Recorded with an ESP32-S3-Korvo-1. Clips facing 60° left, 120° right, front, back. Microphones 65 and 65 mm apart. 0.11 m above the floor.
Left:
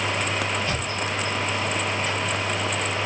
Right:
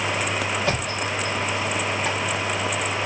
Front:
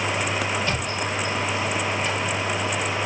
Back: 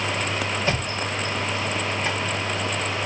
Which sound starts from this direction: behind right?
A thud, at 0.6 s.